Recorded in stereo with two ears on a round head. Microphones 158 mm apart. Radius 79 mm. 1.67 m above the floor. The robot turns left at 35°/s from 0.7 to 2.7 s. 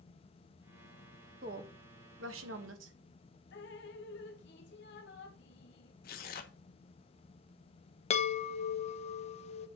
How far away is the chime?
About 0.8 m.